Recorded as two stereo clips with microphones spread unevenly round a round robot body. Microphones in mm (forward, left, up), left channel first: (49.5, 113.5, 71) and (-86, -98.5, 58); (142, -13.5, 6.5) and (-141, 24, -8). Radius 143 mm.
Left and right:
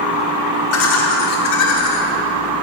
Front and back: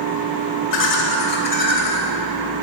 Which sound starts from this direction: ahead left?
Laughter, at 0.7 s.